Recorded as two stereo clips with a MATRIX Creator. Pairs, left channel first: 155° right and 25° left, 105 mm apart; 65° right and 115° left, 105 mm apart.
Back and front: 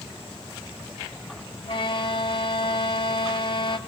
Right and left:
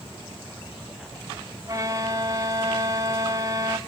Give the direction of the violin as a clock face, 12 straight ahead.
6 o'clock.